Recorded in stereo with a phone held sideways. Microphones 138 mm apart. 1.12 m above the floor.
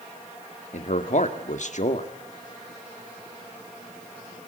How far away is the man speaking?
About 1.9 m.